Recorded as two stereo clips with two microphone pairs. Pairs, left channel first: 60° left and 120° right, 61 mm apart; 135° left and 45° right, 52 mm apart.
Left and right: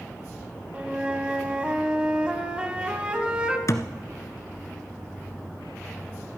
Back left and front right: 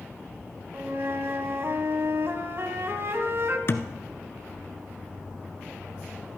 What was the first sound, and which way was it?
A flute, 55° right.